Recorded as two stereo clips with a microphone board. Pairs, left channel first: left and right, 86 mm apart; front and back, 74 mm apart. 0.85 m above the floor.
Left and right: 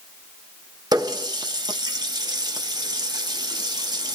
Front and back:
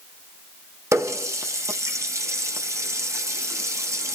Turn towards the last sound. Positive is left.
turn(degrees=-130)